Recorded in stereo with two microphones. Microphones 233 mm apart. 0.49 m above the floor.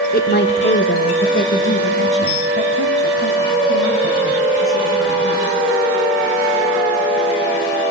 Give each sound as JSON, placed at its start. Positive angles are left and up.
{"t": 0.1, "sound": "a woman speaking", "side_deg": 40, "distance_m": 0.9}